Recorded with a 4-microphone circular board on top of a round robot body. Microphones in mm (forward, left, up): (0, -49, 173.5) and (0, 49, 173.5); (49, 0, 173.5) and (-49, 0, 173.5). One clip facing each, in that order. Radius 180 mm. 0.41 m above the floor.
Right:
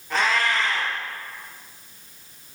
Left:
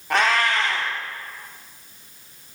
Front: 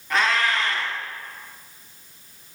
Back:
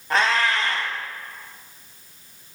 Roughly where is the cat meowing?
Behind left.